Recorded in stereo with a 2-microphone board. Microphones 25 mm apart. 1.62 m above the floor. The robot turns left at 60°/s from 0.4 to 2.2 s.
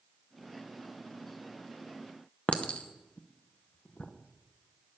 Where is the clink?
50° left (ahead or behind), 0.8 m.